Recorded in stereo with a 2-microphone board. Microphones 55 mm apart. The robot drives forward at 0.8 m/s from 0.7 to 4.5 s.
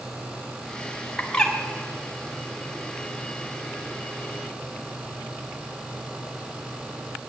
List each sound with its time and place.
1.2 s a bird: 15° left (ahead or behind), 1.2 m; by 1.5 s 10° left (ahead or behind), 1.5 m